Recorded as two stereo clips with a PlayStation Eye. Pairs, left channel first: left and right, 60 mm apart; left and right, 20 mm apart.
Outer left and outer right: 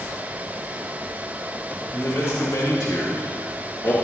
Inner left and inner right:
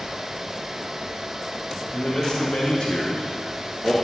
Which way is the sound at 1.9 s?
45° left (ahead or behind).